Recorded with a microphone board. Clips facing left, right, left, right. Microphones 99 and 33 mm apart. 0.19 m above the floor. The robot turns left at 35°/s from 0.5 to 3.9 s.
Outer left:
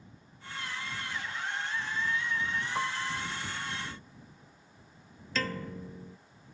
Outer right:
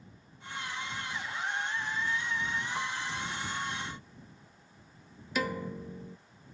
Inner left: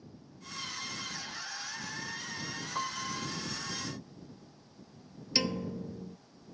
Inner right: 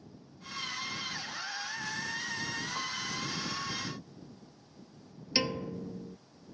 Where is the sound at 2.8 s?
15° left (ahead or behind); by 3.4 s 40° left (ahead or behind).